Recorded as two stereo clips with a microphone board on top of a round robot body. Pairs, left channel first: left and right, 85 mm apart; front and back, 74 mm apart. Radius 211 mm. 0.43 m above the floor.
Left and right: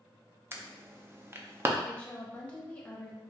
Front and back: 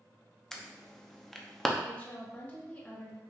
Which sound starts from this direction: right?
An alarm, at 0.5 s.